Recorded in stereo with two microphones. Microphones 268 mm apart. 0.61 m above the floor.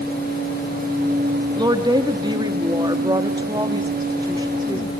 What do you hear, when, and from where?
1.6 s a woman speaking: 15° right (ahead or behind), 1.2 m